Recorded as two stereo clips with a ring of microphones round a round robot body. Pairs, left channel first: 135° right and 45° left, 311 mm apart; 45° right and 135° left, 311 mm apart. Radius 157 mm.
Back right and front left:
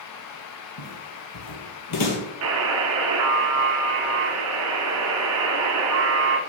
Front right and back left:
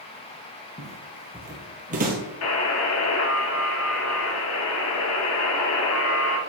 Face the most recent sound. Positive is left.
turn(degrees=0)